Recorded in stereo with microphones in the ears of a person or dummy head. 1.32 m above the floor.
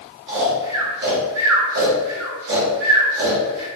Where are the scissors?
I don't hear scissors.